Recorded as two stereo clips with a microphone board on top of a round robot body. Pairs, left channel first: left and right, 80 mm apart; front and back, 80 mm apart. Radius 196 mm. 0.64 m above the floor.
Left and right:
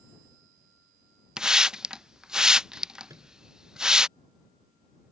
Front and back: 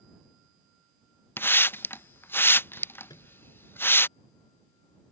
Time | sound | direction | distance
1.4 | a hiss | 20° right | ?
3.1 | a microwave | 40° right | ?